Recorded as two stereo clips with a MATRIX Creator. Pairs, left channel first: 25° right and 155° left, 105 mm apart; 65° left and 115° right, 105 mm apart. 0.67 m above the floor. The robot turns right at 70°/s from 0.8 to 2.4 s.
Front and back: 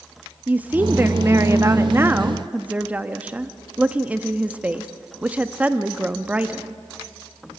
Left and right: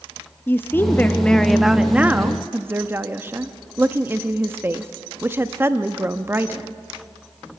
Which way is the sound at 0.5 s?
105° left.